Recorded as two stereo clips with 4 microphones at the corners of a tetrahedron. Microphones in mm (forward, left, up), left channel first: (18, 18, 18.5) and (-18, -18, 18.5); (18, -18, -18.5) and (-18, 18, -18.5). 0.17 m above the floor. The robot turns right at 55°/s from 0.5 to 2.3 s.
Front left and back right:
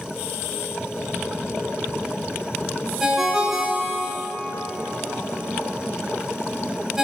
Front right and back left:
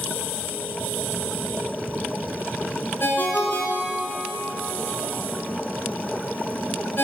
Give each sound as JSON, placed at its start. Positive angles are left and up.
{"t": 3.0, "sound": "a ringtone", "azimuth_deg": -60, "distance_m": 1.0}